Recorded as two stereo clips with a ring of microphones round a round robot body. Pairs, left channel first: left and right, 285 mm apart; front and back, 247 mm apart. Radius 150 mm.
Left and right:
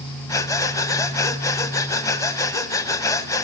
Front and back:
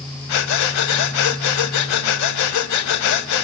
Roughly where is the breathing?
Ahead.